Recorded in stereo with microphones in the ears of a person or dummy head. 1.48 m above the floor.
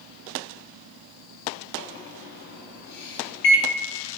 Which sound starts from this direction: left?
A microwave, at 1.8 s.